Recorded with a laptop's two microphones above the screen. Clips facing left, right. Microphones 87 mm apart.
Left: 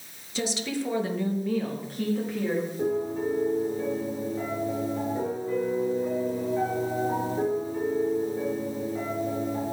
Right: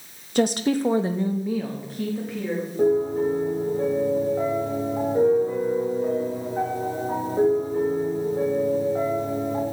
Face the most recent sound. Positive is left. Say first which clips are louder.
# right 12 dB
turn(degrees=-45)  # may be behind; listen again after turning